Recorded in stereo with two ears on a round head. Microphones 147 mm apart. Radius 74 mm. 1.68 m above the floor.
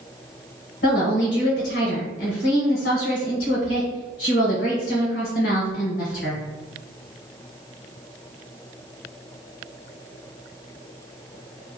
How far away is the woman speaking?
About 1.2 m.